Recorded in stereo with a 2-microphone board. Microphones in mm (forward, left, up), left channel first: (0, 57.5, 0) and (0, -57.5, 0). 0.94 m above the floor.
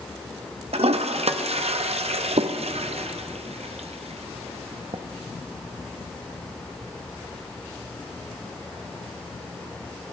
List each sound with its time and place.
0.7 s a toilet flushing: 65° right (ahead or behind), 0.6 m